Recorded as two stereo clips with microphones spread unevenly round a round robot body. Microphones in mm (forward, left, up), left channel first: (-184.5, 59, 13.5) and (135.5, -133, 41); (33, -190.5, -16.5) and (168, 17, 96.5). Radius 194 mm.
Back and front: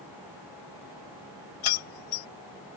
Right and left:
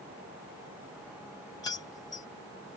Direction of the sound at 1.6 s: 165° left.